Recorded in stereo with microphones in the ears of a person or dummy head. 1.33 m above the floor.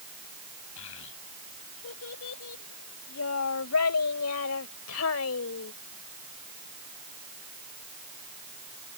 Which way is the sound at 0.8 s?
70° left (ahead or behind).